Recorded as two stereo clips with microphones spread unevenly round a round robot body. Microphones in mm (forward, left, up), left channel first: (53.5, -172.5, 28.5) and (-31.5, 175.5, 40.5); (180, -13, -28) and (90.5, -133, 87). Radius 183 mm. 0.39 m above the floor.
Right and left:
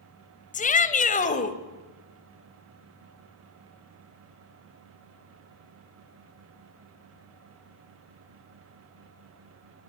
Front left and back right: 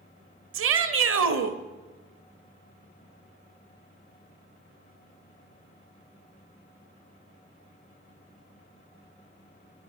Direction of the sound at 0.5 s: 145° right.